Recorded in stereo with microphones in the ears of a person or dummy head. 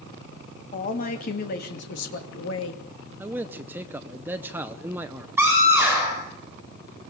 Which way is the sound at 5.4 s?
5° right (ahead or behind).